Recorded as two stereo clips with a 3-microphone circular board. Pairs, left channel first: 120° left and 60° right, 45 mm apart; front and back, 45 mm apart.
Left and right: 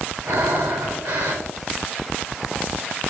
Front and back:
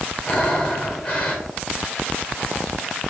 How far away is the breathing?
About 3 m.